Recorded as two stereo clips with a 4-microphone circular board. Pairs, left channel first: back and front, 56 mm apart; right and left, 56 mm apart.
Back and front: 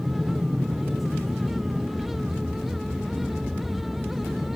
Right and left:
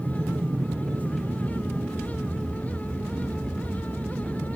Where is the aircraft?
80° left.